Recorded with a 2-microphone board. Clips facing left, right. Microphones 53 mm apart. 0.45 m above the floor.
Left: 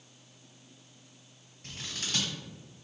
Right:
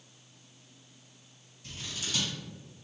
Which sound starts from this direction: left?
Scissors, at 1.6 s.